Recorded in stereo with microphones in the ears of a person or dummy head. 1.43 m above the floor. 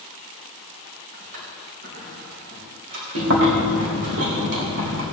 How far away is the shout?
No shout in this recording.